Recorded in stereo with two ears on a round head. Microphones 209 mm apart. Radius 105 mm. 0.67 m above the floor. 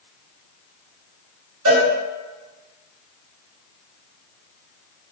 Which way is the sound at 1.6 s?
70° right (ahead or behind).